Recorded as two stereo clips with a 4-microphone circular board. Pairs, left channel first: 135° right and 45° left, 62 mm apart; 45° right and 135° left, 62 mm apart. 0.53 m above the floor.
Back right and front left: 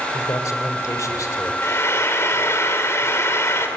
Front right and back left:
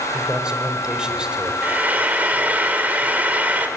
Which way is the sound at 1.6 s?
165° right.